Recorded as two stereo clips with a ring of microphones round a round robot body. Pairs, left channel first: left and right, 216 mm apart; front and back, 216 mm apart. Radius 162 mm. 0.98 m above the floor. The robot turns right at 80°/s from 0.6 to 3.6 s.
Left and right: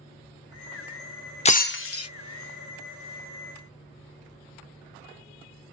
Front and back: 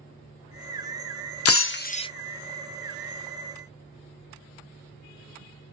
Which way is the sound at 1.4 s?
25° left.